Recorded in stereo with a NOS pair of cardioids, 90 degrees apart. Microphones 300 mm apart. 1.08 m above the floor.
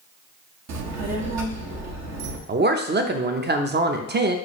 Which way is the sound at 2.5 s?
35° right.